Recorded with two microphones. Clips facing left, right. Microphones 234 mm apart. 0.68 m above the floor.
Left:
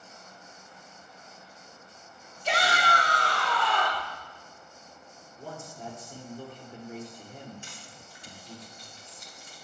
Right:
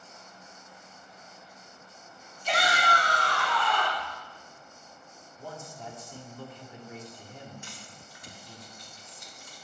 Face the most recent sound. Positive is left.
turn(degrees=30)  # may be behind; listen again after turning